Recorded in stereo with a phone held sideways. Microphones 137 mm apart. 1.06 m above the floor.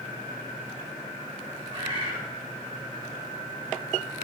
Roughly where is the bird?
Right.